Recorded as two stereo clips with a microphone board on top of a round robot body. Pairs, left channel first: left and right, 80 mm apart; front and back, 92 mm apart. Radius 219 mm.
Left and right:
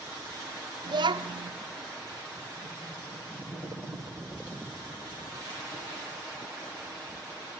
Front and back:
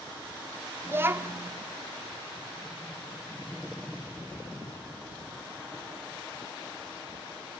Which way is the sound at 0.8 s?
115° right.